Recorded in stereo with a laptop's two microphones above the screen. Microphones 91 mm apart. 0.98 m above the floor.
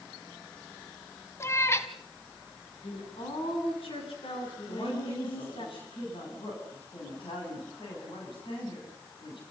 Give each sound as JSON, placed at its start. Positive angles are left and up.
{"t": 1.4, "sound": "a cat meowing", "side_deg": 30, "distance_m": 1.2}
{"t": 2.8, "sound": "a woman speaking", "side_deg": 75, "distance_m": 9.0}
{"t": 4.7, "sound": "a woman speaking", "side_deg": 70, "distance_m": 9.0}